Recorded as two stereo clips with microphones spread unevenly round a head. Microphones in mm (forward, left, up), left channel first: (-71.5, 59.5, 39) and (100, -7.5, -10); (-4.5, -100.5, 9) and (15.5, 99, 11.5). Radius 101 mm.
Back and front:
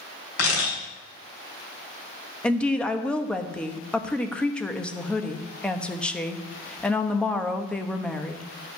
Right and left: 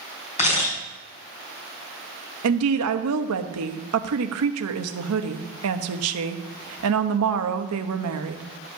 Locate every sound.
0.4 s a camera shutter: 155° right, 5 m
2.4 s a woman speaking: 75° left, 1.1 m